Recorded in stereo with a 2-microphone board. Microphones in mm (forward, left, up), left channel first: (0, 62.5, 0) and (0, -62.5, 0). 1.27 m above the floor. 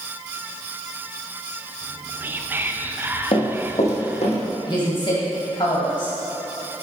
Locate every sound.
1.8 s whispering: 15° right (ahead or behind), 0.5 m
3.3 s running footsteps: 55° left (ahead or behind), 2 m; by 4.3 s 65° left (ahead or behind), 3 m
4.7 s a woman speaking: 45° left (ahead or behind), 1.8 m